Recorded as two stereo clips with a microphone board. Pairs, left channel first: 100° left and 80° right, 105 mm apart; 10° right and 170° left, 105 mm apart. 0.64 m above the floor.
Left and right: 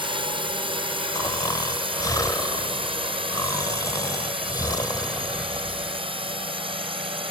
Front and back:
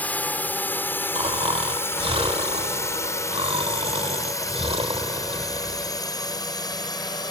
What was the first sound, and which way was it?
A drone, 80° right.